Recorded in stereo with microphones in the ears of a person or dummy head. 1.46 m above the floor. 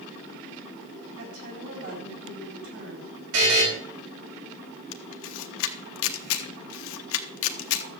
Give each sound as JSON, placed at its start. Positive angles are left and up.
{"t": 1.2, "sound": "a woman speaking", "side_deg": -60, "distance_m": 4.5}
{"t": 3.3, "sound": "a buzzer", "side_deg": -70, "distance_m": 4.5}
{"t": 4.9, "sound": "a camera shutter", "side_deg": 75, "distance_m": 1.1}